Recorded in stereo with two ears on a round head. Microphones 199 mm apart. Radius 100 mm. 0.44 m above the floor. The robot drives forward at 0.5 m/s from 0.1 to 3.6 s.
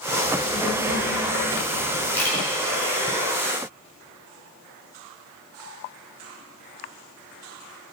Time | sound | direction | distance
0.2 | a child speaking | 55° left (ahead or behind) | 3.5 m
2.1 | a camera shutter | 10° left (ahead or behind) | 5 m